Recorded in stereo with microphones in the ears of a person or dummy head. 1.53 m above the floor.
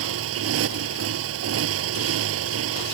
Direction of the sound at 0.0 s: 85° right.